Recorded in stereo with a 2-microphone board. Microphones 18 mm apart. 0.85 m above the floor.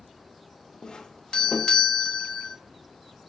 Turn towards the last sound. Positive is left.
turn(degrees=50)  # may be behind; listen again after turning